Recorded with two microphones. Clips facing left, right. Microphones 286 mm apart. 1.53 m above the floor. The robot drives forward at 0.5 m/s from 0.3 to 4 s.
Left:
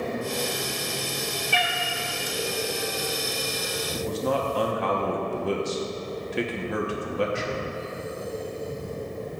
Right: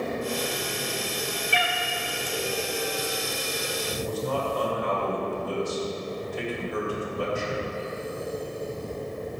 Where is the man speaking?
80° left, 1.1 m.